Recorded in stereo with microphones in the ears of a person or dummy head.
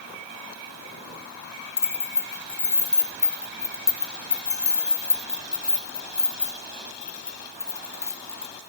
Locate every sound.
1.8 s keys jangling: 15° left (ahead or behind), 1.9 m